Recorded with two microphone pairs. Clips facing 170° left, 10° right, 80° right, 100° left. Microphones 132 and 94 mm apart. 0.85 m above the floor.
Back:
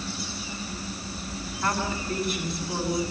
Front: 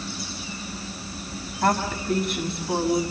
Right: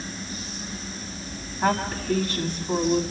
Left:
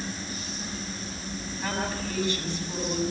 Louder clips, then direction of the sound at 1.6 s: Front 5 dB, right 8 dB; 35° right.